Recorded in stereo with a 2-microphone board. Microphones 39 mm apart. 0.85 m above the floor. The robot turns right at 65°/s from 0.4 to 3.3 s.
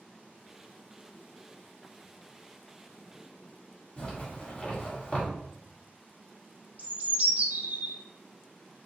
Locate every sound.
4.0 s a zipper: 35° left (ahead or behind), 2 m
6.8 s a bird: 45° right (ahead or behind), 0.7 m